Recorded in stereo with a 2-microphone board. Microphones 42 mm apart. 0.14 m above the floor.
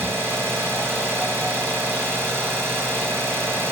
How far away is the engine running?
About 2 m.